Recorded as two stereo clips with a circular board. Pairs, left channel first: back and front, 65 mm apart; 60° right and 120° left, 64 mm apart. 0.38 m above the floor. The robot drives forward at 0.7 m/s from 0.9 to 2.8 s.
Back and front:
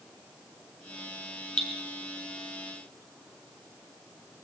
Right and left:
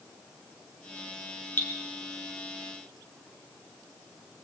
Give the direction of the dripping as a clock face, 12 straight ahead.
4 o'clock.